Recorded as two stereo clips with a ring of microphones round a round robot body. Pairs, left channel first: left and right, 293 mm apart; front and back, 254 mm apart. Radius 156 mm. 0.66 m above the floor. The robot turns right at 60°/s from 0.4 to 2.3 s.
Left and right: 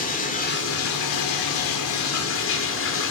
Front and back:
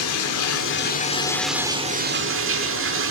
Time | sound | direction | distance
0.0 | running water | 25° left | 1.4 m